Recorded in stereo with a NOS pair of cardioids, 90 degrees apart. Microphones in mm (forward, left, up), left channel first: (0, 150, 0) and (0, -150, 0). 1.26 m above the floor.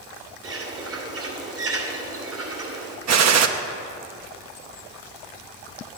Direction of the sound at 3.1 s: 60° right.